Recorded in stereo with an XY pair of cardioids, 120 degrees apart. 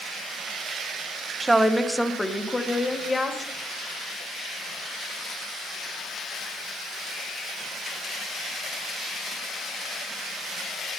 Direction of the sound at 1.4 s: 15° right.